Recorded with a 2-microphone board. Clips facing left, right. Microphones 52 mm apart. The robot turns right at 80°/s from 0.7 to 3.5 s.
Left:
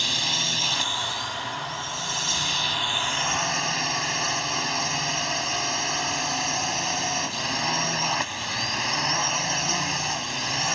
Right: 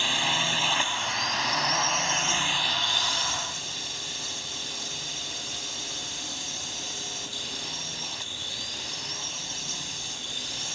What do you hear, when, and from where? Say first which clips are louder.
0.0 s a drone: right 2 dB; 160° right; by 10.8 s 65° left